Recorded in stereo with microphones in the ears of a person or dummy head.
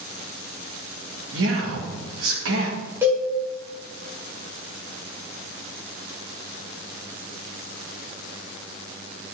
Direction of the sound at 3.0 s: 10° right (ahead or behind).